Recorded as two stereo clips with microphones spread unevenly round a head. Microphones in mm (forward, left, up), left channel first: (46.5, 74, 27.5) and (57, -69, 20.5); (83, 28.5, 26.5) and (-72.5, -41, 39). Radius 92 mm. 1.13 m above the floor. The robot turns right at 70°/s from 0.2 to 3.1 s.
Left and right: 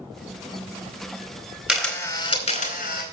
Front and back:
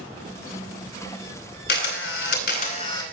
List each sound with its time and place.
1.7 s a camera shutter: 5° right, 4 m; by 3.0 s 90° left, 4 m